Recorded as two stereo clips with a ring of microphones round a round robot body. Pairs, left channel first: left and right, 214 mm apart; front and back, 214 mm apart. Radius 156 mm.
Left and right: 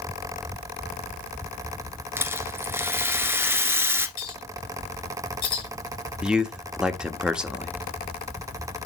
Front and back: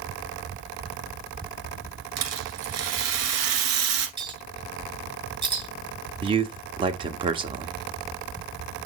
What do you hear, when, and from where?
2.2 s a rattle: 170° right, 1.9 m
4.2 s a clink: 110° left, 5.5 m
6.2 s a man speaking: 170° right, 1.1 m